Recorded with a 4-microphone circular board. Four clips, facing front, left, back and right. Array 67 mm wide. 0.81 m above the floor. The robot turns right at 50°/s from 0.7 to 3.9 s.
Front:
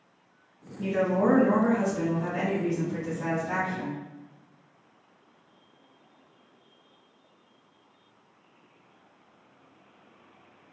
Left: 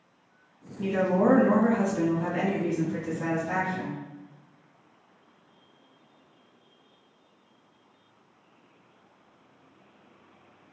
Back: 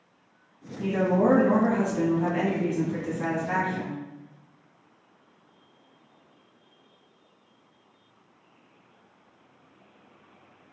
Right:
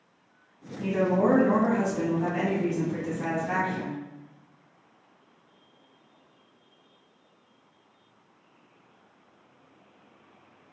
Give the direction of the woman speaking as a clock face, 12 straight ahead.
9 o'clock.